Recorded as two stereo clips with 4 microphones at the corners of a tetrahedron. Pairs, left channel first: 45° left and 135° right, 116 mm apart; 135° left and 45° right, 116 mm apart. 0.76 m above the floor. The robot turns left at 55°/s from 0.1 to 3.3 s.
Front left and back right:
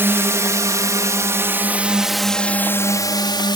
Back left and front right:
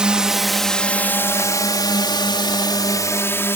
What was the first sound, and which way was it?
A drone, 115° right.